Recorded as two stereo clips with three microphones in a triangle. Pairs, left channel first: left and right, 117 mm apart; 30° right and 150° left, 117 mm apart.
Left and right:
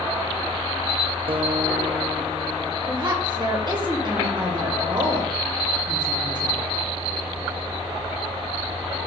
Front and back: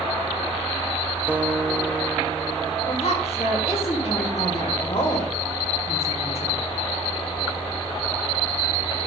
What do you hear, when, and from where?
1.3 s a guitar: 130° right, 0.7 m
2.9 s a woman speaking: 45° right, 2.5 m